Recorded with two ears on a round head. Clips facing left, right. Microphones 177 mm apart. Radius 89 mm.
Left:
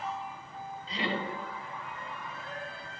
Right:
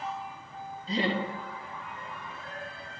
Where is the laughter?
45° right (ahead or behind), 2.5 m.